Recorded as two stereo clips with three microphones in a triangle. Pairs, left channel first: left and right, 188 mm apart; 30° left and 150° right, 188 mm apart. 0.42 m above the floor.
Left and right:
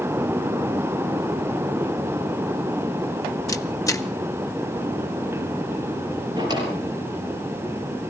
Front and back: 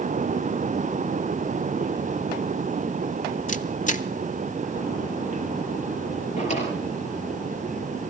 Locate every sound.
3.5 s a camera shutter: 30° left, 1.1 m
6.4 s a drawer: 20° right, 6.5 m